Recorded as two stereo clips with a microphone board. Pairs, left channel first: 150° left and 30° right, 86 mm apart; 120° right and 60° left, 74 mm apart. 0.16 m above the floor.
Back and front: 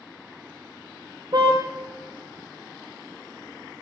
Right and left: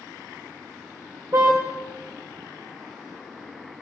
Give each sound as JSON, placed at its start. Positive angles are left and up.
{"t": 1.3, "sound": "a car horn", "azimuth_deg": 10, "distance_m": 7.0}